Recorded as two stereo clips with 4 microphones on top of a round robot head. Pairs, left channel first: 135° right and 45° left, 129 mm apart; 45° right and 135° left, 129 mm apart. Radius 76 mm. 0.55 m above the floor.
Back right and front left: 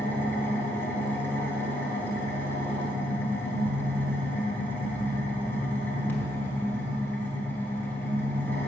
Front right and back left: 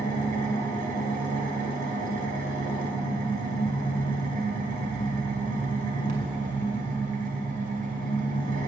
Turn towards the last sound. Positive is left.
turn(degrees=150)